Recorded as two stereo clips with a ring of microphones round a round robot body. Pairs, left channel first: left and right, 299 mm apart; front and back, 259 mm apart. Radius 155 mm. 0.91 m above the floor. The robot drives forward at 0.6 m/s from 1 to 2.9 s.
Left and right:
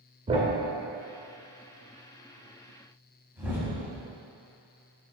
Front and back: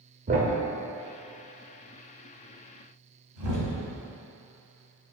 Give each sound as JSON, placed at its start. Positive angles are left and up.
{"t": 0.3, "sound": "a thud", "azimuth_deg": -150, "distance_m": 0.6}